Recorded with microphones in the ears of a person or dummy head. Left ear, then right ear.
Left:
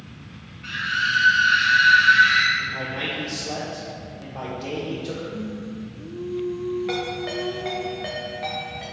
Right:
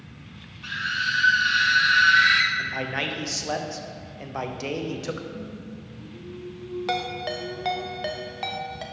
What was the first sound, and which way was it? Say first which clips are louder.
A scream: left 3 dB; 25° right (ahead or behind).